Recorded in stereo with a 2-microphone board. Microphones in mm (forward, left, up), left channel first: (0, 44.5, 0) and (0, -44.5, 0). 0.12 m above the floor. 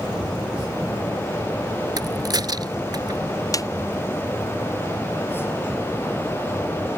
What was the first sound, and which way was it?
A crack, 50° right (ahead or behind).